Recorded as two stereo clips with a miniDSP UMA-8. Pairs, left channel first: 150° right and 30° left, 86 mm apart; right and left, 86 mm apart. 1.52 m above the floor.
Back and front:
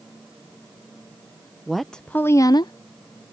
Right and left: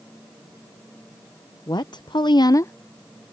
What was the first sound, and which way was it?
A woman speaking, 60° right.